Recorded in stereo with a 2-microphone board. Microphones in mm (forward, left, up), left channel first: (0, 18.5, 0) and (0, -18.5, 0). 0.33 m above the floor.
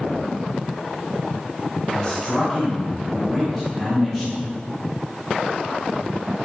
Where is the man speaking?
25° left (ahead or behind), 1.0 m; by 4.4 s centre (ahead or behind), 1.3 m.